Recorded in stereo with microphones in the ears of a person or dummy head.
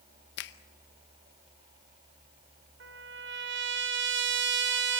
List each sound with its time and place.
0.4 s a finger snap: 60° left (ahead or behind), 1.0 m
2.8 s a trumpet: 55° right (ahead or behind), 1.1 m